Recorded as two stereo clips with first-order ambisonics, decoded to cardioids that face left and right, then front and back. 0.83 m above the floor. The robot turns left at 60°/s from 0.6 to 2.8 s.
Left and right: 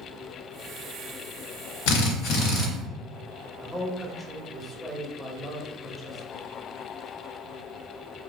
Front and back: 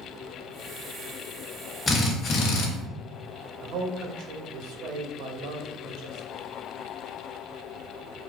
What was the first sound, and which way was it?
A drill, 75° left.